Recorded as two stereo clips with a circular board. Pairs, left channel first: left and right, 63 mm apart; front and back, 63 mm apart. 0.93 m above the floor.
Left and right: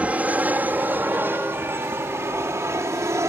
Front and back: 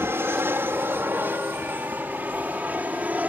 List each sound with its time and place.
0.0 s an aircraft: 150° right; by 3.3 s 120° right